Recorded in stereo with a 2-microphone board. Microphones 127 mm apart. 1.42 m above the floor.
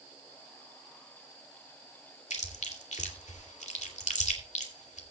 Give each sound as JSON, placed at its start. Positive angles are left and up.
{"t": 2.3, "sound": "chewing", "side_deg": 70, "distance_m": 2.5}